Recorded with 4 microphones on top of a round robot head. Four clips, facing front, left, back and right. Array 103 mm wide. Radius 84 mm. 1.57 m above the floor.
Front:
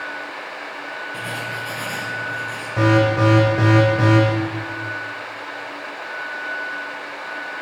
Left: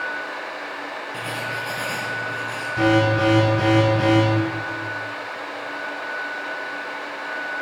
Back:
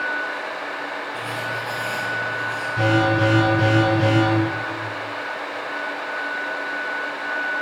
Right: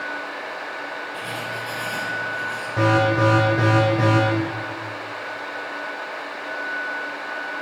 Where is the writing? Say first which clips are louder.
Left 1 dB, even; 30° left, 5.5 m.